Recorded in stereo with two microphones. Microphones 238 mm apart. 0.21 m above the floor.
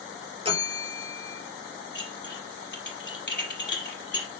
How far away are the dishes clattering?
About 4 m.